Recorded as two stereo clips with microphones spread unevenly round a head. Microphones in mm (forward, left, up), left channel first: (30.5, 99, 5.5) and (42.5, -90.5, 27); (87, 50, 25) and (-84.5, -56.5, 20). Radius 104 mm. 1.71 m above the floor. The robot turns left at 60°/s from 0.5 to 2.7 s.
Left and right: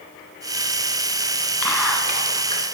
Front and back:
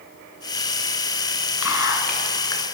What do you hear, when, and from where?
1.6 s whispering: 10° left, 1.4 m; by 2.8 s 55° right, 1.4 m